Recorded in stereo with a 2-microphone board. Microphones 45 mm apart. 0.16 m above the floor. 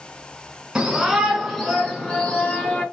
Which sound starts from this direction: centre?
A shout, at 0.8 s.